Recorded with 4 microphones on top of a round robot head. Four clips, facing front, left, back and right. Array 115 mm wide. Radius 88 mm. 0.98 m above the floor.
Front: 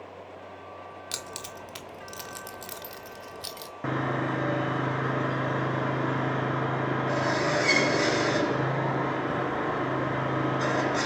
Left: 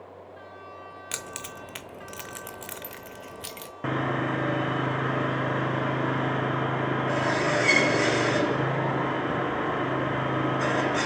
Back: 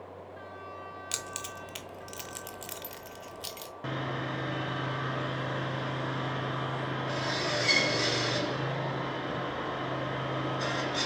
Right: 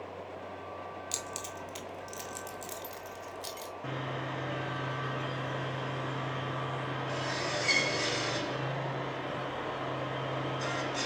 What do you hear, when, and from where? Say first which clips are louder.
1.1 s keys jangling: left 2 dB, front 1 dB; 65° left, 0.7 m
3.8 s sawing: left 11 dB, front 6 dB; 55° left, 0.6 m